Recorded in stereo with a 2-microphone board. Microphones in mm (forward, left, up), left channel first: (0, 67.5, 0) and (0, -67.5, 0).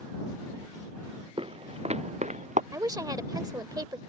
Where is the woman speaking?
25° right (ahead or behind).